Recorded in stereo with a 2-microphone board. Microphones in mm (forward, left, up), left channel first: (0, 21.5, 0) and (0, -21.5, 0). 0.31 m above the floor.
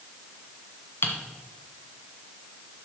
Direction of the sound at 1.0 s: 60° left (ahead or behind).